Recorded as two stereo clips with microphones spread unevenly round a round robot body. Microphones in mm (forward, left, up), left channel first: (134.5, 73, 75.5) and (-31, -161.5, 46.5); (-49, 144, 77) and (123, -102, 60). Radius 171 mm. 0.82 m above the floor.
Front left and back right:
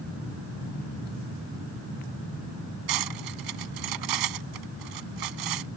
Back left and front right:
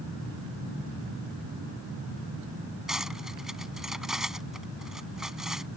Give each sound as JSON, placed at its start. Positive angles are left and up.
{"t": 2.9, "sound": "cutlery clinking", "azimuth_deg": -145}